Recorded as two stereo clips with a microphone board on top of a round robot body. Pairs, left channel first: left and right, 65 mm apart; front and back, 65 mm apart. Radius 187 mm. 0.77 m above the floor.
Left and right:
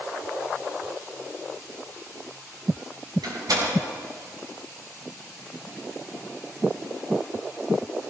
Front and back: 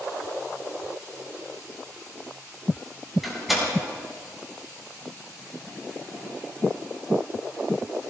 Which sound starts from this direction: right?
A door slam, at 3.2 s.